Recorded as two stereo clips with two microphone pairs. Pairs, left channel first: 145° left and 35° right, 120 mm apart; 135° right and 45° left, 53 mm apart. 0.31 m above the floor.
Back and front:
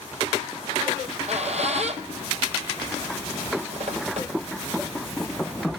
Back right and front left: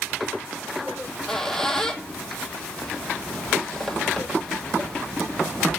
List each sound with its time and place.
0.9 s a squeak: 55° right, 1.3 m